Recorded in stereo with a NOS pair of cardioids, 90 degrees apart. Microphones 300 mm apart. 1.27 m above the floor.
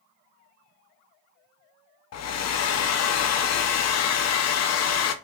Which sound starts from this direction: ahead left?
A hair dryer, at 2.1 s.